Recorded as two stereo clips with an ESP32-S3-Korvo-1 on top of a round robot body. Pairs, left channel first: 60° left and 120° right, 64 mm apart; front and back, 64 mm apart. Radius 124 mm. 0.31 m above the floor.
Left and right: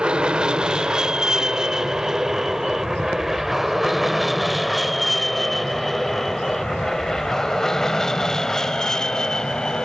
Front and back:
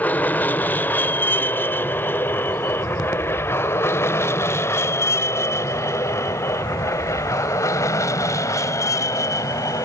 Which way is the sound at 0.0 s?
50° right.